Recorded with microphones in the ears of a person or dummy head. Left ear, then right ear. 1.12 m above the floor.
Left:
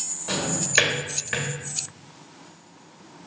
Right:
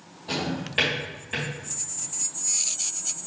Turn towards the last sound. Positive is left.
turn(degrees=60)  # may be behind; listen again after turning